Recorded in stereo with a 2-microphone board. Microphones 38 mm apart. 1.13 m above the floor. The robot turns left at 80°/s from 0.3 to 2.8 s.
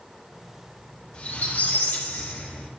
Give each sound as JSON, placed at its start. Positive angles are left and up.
{"t": 1.1, "sound": "a squeak", "azimuth_deg": 155, "distance_m": 1.6}